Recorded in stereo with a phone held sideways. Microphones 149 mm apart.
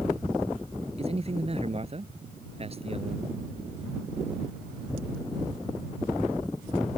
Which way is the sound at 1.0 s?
40° right (ahead or behind).